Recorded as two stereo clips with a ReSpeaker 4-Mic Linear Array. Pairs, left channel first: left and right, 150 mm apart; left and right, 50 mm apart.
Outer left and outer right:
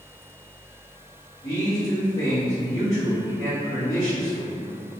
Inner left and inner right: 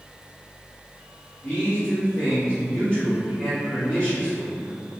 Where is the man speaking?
20° left (ahead or behind), 1.7 m.